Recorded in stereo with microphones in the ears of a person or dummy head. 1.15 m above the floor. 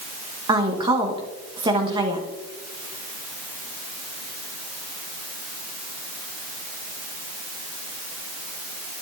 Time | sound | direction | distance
0.5 | a woman speaking | 20° right (ahead or behind) | 1.4 m